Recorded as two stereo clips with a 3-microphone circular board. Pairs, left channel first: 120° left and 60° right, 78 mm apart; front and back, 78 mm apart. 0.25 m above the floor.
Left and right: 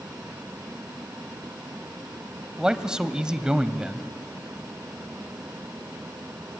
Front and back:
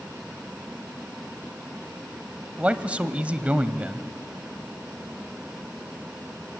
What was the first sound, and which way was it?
A man speaking, 125° right.